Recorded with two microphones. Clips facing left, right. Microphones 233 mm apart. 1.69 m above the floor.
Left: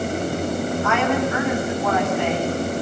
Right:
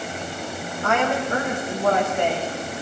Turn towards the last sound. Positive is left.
turn(degrees=-55)  # may be behind; listen again after turning